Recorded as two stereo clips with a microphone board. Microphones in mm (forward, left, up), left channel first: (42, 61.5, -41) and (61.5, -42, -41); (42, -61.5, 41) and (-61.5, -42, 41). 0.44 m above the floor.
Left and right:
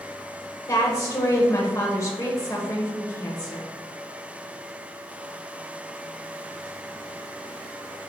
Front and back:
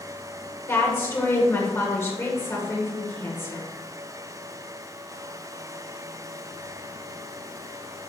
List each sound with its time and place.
0.7 s a woman speaking: 50° left, 1.2 m